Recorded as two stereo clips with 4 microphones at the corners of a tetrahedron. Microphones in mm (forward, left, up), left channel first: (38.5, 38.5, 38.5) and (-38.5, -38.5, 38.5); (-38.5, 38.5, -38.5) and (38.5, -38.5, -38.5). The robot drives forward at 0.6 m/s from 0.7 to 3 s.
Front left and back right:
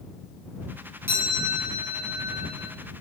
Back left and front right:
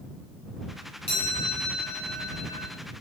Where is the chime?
155° left, 3 m; by 2.7 s 160° left, 4 m.